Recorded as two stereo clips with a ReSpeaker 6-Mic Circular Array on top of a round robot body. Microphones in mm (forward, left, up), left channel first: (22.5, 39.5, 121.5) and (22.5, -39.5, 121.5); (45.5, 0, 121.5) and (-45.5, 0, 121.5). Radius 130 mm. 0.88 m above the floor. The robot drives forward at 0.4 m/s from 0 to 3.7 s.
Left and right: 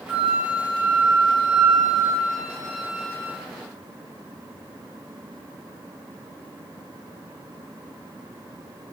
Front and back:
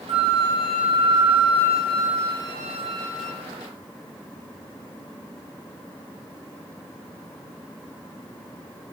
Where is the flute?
165° right, 1.5 m; by 3.3 s 170° right, 2.5 m.